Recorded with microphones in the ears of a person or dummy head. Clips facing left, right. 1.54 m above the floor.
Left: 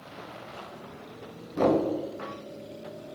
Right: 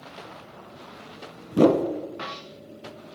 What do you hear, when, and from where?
1.5 s a whoosh: 45° right (ahead or behind), 0.5 m